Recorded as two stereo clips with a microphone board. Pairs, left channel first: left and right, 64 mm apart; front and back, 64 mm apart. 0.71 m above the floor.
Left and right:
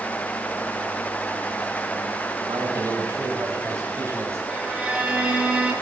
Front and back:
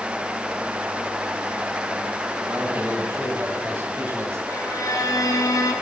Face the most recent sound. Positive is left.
turn(degrees=-15)